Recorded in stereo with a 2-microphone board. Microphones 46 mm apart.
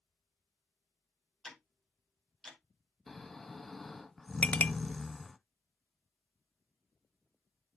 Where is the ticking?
10° left (ahead or behind), 2 m.